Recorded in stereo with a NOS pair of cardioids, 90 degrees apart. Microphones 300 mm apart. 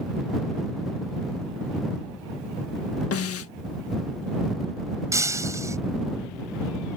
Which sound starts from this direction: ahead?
Breaking glass, at 5.1 s.